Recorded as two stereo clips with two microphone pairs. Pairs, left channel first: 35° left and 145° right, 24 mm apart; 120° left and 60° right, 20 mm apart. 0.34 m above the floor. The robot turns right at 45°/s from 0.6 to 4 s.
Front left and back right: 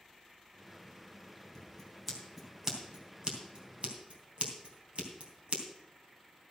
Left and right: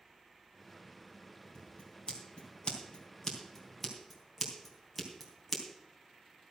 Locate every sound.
1.6 s scissors: 95° left, 3 m; by 5.6 s 155° right, 3 m